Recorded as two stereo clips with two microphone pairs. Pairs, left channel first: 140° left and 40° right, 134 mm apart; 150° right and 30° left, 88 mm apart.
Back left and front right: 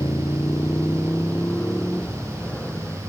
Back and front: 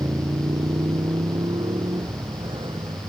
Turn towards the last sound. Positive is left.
turn(degrees=55)